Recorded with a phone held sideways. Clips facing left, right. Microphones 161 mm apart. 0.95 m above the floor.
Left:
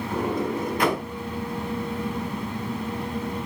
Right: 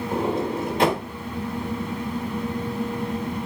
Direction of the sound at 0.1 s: 25° right (ahead or behind).